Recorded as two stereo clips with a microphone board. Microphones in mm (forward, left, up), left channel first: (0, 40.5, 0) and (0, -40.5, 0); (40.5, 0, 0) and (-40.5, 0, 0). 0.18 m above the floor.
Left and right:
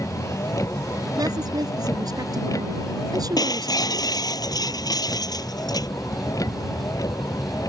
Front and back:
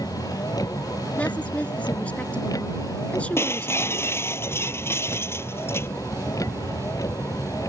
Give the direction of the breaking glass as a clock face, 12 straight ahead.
10 o'clock.